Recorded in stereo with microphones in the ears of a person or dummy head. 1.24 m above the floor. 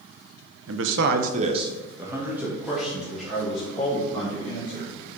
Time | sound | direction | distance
0.7 | a man speaking | 70° right (ahead or behind) | 1.0 m